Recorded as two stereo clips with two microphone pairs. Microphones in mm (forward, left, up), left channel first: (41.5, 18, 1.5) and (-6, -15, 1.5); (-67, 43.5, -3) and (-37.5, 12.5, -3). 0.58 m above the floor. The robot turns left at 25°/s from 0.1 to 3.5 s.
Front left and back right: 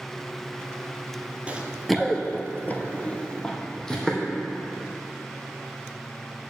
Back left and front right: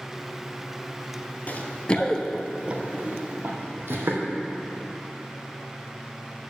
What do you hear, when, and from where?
1.5 s running footsteps: 155° left, 0.8 m; by 4.3 s 40° right, 1.6 m